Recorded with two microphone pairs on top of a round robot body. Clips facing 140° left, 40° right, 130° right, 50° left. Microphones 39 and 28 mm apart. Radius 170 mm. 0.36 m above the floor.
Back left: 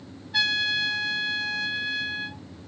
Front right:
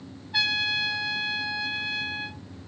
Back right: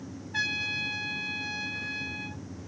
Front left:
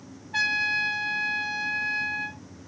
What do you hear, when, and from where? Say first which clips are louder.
0.3 s a trumpet: back left 1 dB, front left 6 dB; 45° left, 4.5 m